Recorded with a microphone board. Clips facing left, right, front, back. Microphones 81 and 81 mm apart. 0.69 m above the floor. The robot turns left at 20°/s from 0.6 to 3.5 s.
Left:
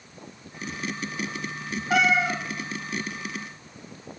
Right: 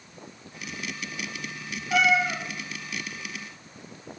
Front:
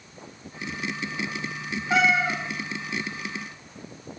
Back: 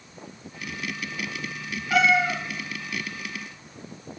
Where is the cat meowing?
65° left, 0.8 m; by 2.4 s 55° left, 0.8 m.